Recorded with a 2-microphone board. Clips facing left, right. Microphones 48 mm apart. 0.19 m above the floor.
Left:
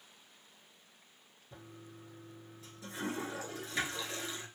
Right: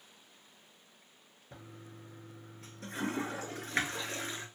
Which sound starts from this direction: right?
A toilet flushing, at 1.5 s.